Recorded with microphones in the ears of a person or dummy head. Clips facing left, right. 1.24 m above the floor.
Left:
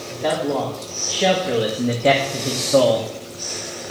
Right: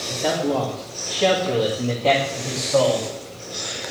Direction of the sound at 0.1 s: 5° right (ahead or behind).